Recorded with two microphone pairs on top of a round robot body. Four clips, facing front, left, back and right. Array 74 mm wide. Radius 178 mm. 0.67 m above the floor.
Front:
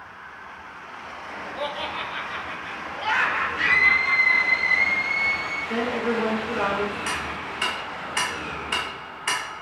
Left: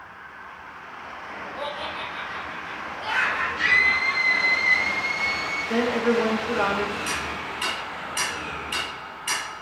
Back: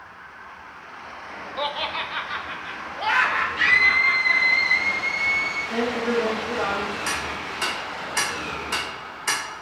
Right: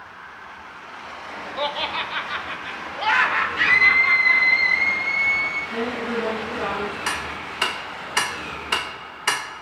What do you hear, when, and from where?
1.6 s laughter: 135° right, 1.1 m; by 4.6 s 115° right, 3 m
3.6 s a scream: 85° right, 5 m
5.7 s a woman speaking: 60° left, 3.5 m
7.1 s ticking: 95° right, 0.9 m